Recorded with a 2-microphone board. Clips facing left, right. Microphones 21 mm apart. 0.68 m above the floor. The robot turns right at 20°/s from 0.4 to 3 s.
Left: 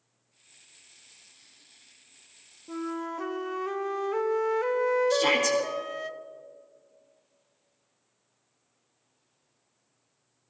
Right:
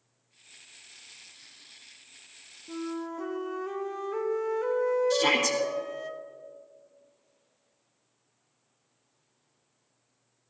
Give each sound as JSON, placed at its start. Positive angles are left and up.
{"t": 2.7, "sound": "a flute", "side_deg": 25, "distance_m": 0.5}
{"t": 5.1, "sound": "a shout", "side_deg": 0, "distance_m": 1.2}